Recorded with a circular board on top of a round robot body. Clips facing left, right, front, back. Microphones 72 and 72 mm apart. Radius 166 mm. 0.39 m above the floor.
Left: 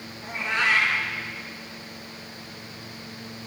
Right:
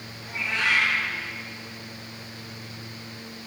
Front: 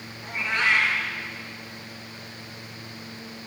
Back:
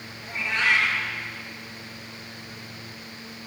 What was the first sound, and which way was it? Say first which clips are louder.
A cat meowing: left 2 dB, even; 45° left.